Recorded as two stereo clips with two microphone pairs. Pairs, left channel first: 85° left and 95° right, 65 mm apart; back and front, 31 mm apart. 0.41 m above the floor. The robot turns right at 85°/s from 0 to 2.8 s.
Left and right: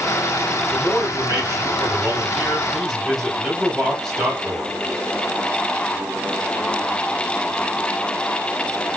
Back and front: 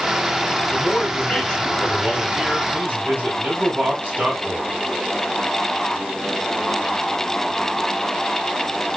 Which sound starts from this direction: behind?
A man speaking, at 0.7 s.